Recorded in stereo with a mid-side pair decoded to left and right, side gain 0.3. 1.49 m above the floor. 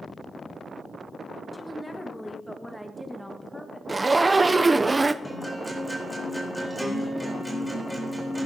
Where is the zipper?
30° right, 0.6 m.